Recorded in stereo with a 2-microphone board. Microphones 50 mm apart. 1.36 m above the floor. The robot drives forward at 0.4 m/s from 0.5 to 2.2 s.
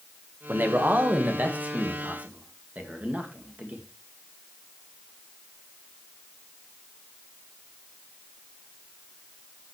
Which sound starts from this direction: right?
A man speaking, at 0.5 s.